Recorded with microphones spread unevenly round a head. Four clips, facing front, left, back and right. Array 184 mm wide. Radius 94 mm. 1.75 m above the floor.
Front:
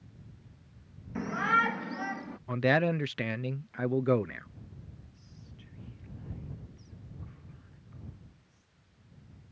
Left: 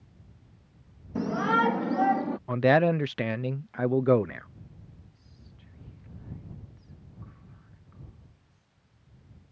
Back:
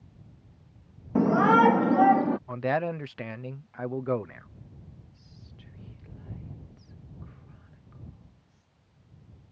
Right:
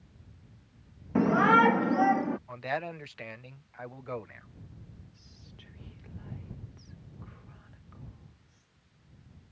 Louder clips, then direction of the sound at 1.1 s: Right 4 dB, back 9 dB; 155° right.